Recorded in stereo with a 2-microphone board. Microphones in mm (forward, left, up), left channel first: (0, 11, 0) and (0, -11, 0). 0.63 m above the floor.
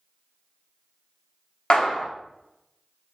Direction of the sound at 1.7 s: 45° left (ahead or behind).